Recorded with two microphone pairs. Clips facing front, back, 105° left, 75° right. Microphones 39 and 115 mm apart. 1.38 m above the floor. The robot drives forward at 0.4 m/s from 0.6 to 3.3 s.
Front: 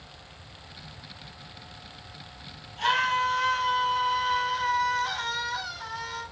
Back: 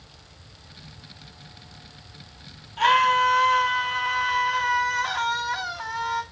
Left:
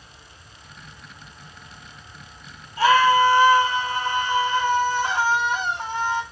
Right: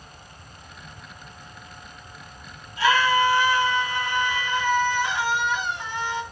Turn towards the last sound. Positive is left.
turn(degrees=155)